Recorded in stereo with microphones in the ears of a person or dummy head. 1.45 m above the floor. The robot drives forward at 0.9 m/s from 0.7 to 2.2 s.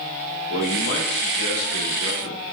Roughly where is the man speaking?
Left.